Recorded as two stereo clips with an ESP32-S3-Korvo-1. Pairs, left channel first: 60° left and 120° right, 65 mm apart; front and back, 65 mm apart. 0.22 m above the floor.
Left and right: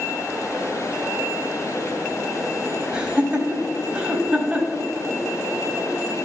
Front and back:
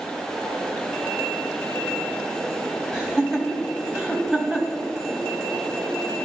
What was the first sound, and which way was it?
Laughter, 120° right.